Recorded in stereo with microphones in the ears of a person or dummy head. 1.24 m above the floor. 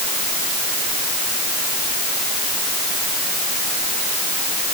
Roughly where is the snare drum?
I don't hear a snare drum.